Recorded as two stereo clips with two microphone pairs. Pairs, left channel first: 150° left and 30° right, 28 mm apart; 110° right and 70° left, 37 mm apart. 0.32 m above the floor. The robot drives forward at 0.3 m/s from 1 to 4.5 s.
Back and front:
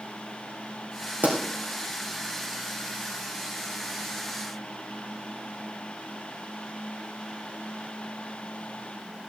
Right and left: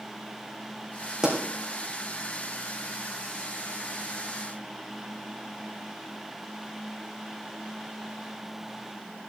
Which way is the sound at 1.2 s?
Straight ahead.